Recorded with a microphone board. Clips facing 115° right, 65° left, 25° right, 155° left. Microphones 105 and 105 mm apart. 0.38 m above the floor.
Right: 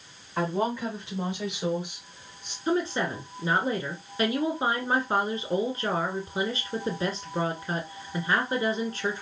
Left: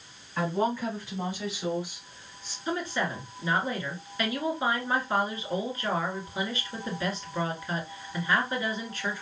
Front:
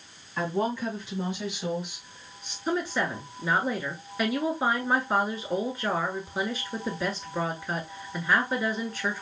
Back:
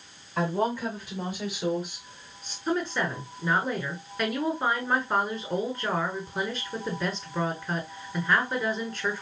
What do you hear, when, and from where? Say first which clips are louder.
0.4 s a woman speaking: even, back 1 dB; 175° right, 2.5 m
2.7 s a woman speaking: right 4 dB, even; 105° right, 1.5 m